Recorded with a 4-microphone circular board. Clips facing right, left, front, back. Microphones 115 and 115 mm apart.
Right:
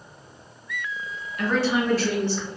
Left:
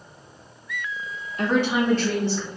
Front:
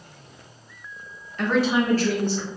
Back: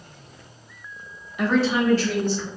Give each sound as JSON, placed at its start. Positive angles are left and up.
{"t": 1.4, "sound": "a woman speaking", "azimuth_deg": 110, "distance_m": 0.8}